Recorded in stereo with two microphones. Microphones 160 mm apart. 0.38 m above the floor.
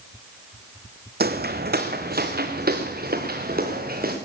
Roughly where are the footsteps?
Right.